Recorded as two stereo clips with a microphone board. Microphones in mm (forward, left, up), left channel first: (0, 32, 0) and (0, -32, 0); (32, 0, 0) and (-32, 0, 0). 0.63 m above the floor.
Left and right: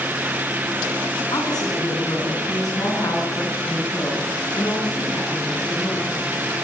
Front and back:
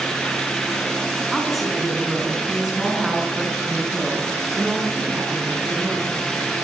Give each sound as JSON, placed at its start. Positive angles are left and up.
{"t": 1.3, "sound": "a woman speaking", "azimuth_deg": 90, "distance_m": 8.5}